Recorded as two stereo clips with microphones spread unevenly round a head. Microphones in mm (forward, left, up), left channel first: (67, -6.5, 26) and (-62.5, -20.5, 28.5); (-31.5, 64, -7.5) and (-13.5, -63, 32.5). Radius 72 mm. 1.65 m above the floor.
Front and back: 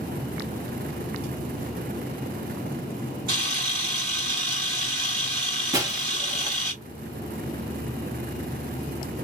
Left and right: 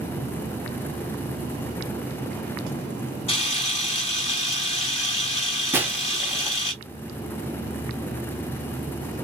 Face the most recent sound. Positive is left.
turn(degrees=-120)